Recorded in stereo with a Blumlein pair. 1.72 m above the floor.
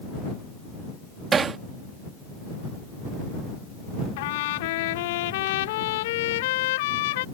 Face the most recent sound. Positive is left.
turn(degrees=50)